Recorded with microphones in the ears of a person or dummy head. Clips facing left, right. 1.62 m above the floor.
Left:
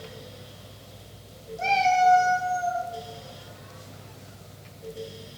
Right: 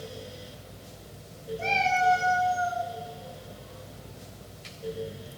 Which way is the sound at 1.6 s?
75° left (ahead or behind).